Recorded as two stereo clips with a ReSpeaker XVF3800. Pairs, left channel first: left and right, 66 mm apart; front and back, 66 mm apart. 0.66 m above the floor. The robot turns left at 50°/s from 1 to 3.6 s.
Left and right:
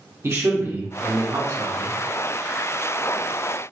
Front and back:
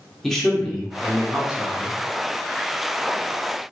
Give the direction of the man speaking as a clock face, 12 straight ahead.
3 o'clock.